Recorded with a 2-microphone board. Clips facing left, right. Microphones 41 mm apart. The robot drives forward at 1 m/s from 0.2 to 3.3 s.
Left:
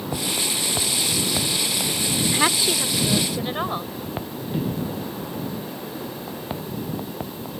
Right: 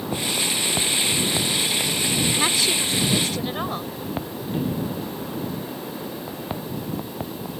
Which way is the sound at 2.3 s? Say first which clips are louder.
Left 1 dB; 20° left (ahead or behind).